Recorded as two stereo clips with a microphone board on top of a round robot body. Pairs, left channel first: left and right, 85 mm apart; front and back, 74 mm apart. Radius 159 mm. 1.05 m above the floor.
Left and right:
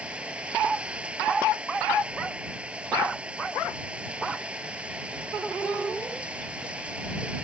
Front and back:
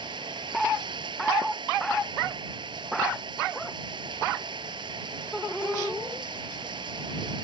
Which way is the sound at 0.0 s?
165° right.